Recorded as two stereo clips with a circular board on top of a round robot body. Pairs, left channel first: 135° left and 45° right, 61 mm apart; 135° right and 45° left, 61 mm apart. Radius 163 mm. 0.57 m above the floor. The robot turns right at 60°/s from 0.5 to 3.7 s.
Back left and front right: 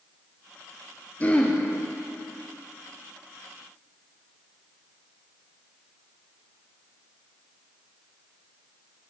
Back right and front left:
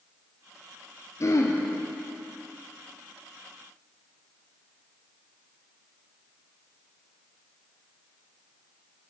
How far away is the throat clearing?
About 1.6 m.